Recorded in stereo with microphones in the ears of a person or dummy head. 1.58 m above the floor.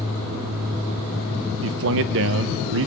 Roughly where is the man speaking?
Right.